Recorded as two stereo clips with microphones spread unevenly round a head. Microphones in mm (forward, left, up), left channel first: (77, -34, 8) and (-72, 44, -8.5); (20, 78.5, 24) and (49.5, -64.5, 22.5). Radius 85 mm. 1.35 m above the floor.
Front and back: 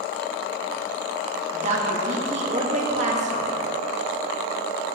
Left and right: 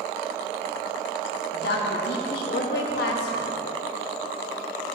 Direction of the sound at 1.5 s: 105° left.